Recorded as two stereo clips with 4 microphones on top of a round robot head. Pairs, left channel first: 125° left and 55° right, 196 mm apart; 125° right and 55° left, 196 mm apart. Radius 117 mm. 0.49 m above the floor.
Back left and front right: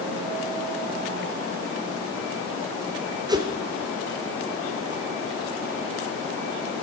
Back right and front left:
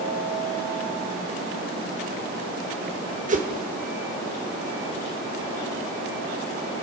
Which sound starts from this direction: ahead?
A whoosh, at 3.3 s.